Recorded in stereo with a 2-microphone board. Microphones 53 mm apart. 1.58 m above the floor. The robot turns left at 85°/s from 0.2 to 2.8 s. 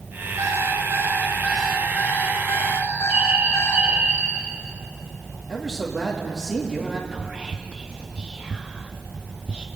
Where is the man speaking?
10° right (ahead or behind), 2.5 m.